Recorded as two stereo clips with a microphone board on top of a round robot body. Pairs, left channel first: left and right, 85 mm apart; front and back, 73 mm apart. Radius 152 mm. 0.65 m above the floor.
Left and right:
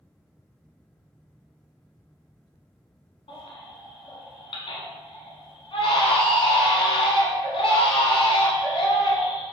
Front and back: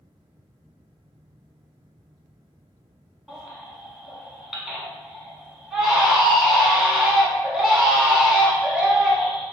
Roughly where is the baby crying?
Left.